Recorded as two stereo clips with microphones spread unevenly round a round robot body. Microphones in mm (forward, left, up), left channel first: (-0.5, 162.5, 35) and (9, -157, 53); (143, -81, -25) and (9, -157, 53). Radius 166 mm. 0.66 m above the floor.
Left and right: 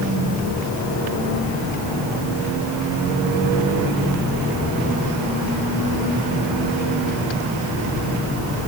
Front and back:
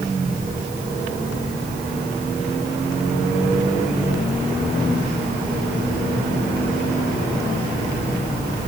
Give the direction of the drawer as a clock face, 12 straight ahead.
I don't hear a drawer.